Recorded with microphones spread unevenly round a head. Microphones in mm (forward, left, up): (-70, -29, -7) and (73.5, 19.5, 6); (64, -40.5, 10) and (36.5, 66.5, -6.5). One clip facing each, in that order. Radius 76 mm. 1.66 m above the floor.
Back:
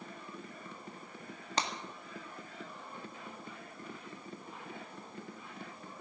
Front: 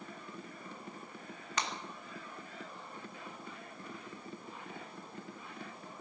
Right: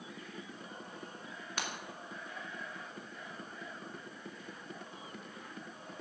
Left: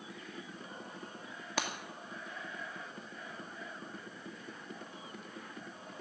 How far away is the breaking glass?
About 1.9 m.